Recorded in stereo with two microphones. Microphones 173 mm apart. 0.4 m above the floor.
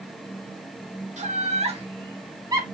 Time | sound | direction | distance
1.2 | laughter | 40° right (ahead or behind) | 1.4 m